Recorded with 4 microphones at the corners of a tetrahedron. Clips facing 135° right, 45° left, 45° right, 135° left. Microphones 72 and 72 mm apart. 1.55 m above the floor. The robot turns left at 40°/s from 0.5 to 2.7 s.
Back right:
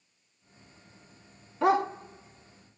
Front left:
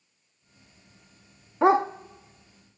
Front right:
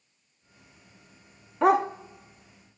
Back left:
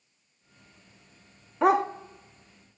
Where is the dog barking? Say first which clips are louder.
Front left 4 dB, front right 1 dB; 45° left, 1.0 m; by 1.9 s 35° left, 1.0 m.